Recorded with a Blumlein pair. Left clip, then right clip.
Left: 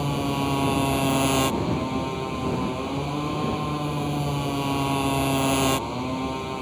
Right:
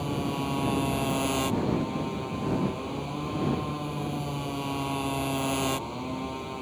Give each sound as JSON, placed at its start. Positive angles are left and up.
{"t": 0.0, "sound": "a motorcycle", "azimuth_deg": 20}